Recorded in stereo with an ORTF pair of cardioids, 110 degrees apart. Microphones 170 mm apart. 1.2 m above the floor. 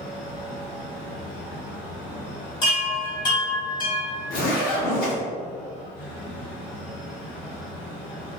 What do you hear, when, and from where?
0.0 s a fan: 65° left, 1.9 m
2.6 s a chime: 25° left, 1.9 m
4.3 s a zipper: 55° left, 1.8 m